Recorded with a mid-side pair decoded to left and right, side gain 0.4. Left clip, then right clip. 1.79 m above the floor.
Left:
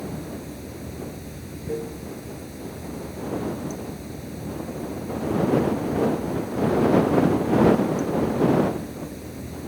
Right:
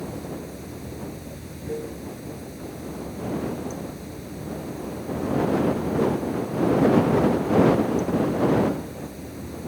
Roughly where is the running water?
Ahead.